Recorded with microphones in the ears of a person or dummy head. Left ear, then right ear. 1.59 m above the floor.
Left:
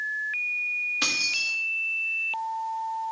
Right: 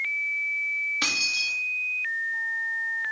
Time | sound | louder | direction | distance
1.0 | keys jangling | even | 10° left (ahead or behind) | 1.5 m